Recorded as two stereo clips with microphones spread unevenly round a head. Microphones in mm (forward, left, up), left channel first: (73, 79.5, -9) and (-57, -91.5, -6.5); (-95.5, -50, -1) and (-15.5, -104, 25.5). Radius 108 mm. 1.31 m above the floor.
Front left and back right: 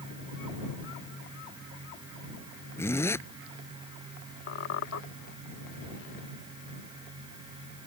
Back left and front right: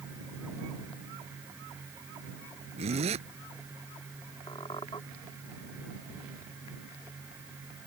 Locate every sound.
2.8 s a zipper: 25° right
4.5 s a squeak: 75° left